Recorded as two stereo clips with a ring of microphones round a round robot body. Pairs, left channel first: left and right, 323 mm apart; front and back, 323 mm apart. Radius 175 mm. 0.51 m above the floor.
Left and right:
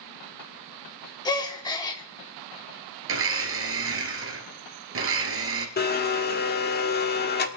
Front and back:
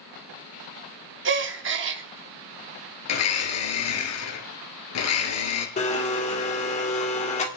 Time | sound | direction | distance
1.2 | a gasp | 160° left | 0.8 m
3.1 | a blender | 40° right | 2.5 m
5.8 | a blender | 55° left | 1.5 m